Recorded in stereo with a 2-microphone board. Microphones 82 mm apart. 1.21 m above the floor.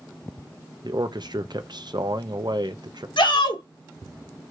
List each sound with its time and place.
0.8 s a man speaking: 65° right (ahead or behind), 1.0 m
3.2 s a shout: 80° left, 3 m